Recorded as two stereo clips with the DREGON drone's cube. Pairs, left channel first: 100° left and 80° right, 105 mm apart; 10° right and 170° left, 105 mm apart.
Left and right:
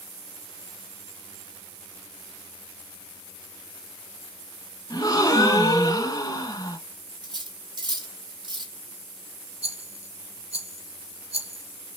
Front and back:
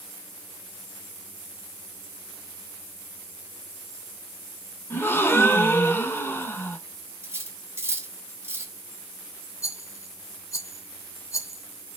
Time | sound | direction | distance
4.9 | a gasp | 55° left | 1.6 m
7.2 | cutlery clinking | 125° right | 1.7 m
9.6 | a rattle | 70° right | 3.5 m